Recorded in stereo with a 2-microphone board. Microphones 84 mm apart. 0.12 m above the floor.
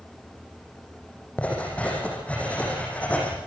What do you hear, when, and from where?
1.4 s writing: 15° left (ahead or behind), 6.5 m